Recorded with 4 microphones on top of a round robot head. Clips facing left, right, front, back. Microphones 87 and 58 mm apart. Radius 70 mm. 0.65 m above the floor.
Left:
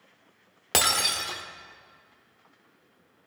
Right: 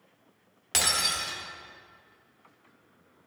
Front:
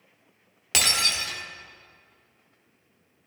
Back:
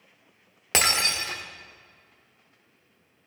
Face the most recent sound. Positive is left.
turn(degrees=125)